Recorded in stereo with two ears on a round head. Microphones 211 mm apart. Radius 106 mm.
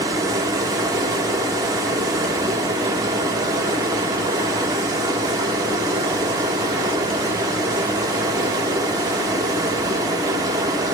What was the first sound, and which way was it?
Running water, 15° right (ahead or behind).